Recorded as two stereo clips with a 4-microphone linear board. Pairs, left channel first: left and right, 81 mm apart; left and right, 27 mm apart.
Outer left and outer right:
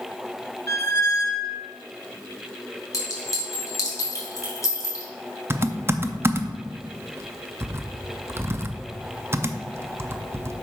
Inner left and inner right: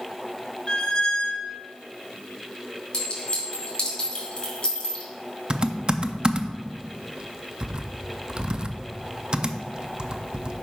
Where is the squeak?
35° left (ahead or behind), 0.7 m.